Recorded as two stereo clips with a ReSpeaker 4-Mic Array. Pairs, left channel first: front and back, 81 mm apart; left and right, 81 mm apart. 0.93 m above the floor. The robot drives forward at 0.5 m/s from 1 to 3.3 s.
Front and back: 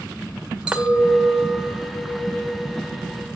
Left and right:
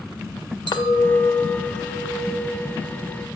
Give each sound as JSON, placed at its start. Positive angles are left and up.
{"t": 0.7, "sound": "a clink", "azimuth_deg": 100, "distance_m": 1.0}